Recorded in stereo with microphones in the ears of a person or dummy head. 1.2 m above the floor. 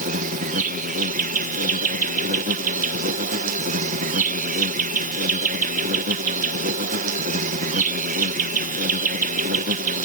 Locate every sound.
0.0 s an insect: 35° right (ahead or behind)